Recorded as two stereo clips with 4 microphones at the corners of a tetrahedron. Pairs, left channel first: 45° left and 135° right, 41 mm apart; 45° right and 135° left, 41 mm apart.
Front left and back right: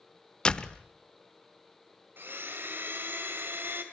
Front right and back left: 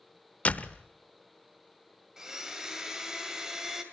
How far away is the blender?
About 2 m.